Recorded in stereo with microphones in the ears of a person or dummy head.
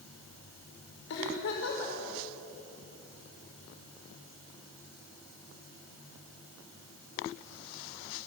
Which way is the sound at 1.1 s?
75° left (ahead or behind).